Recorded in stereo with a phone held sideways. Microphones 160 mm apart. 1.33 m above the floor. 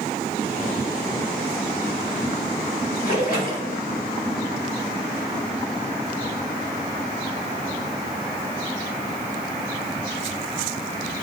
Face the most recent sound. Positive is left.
turn(degrees=55)  # may be behind; listen again after turning